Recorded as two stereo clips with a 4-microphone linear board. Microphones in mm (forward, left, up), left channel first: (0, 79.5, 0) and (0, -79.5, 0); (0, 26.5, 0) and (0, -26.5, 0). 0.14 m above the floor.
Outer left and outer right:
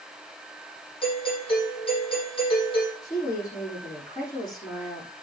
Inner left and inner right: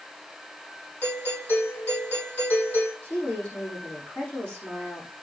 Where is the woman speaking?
25° left (ahead or behind), 7.5 m.